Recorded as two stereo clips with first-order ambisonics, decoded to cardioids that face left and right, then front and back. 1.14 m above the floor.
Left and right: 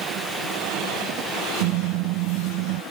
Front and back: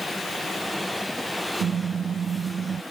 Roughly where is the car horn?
Behind right.